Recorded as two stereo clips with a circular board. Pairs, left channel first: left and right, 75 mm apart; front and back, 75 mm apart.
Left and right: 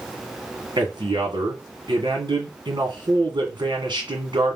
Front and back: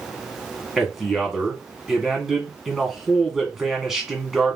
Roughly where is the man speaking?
Right.